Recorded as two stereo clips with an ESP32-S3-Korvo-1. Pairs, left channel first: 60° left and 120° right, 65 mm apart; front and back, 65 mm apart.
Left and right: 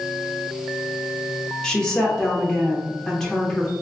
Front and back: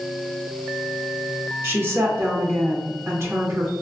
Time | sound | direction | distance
1.6 | a woman speaking | 135° left | 1.0 m